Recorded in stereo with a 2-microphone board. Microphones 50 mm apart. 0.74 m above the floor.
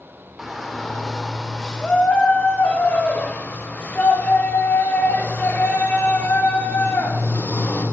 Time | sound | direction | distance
0.4 | a shout | 5° right (ahead or behind) | 1.9 m